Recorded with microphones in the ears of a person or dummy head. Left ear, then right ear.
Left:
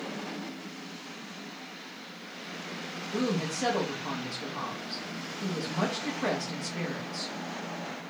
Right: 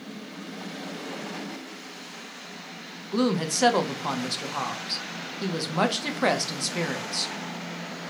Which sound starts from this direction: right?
A woman speaking, at 3.1 s.